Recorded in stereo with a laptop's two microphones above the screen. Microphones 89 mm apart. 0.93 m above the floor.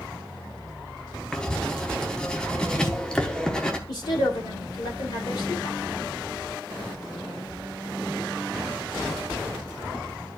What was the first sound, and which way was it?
Writing, 10° left (ahead or behind).